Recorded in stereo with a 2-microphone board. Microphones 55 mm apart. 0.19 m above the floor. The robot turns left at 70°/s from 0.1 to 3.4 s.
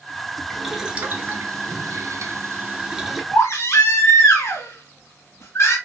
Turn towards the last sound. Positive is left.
turn(degrees=55)  # may be behind; listen again after turning